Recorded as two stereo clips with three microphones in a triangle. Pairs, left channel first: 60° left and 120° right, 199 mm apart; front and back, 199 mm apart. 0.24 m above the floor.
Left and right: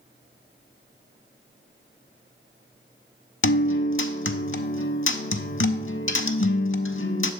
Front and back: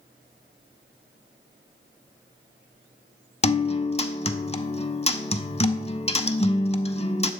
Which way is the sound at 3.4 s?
60° left.